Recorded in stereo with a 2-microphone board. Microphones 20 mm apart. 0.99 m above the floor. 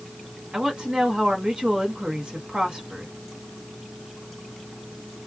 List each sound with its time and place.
0.5 s a woman speaking: 45° right (ahead or behind), 1.7 m